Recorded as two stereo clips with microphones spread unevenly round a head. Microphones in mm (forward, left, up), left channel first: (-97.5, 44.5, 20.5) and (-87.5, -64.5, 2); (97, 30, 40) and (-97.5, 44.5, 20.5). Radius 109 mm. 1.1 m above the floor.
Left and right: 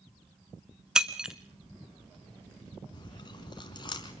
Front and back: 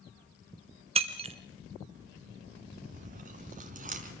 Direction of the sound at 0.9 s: 175° left.